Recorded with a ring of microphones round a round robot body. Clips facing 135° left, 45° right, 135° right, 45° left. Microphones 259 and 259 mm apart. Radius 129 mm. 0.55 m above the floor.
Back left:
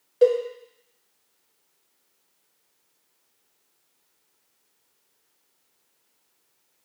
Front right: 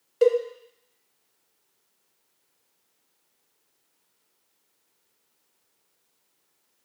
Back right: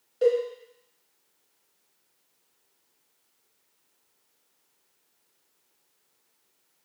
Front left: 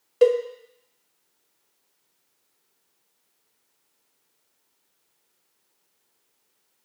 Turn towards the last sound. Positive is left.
turn(degrees=25)